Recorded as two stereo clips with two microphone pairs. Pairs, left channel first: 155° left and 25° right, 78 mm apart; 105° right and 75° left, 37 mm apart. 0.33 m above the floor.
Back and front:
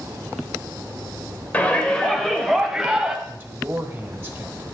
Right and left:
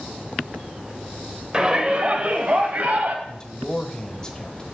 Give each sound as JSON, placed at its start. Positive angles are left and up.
{"t": 1.5, "sound": "a shout", "azimuth_deg": 115, "distance_m": 1.0}
{"t": 3.2, "sound": "a man speaking", "azimuth_deg": -65, "distance_m": 1.0}